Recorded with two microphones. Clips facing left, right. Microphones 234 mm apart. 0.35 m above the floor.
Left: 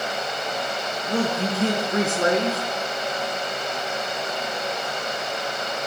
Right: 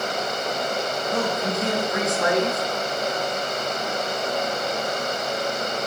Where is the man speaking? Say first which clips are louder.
Left 3 dB; 35° left (ahead or behind), 3.5 m.